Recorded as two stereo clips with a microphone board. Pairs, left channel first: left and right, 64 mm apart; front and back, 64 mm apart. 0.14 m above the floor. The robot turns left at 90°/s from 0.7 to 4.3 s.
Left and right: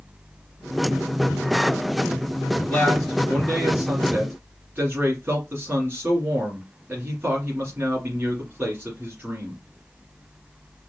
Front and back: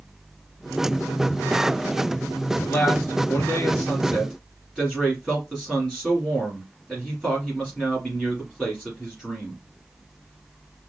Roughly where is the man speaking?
Ahead left.